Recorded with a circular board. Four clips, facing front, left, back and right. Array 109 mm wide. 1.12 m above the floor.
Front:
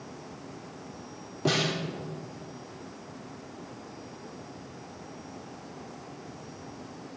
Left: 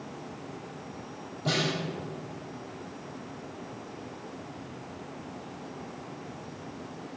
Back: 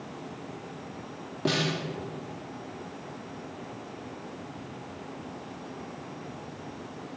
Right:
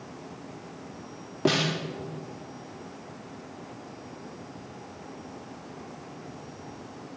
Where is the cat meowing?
No cat meowing in this recording.